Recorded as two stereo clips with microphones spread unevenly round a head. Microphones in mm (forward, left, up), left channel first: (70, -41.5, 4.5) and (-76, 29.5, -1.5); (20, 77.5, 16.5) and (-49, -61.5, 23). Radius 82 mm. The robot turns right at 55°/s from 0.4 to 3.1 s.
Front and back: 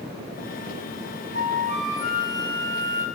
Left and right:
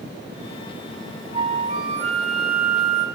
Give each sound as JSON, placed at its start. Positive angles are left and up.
{"t": 1.3, "sound": "a flute", "azimuth_deg": -175, "distance_m": 3.5}